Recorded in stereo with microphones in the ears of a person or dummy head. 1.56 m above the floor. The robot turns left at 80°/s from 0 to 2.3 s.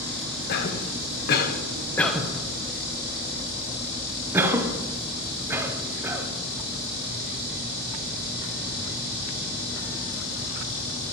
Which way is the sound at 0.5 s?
50° left (ahead or behind).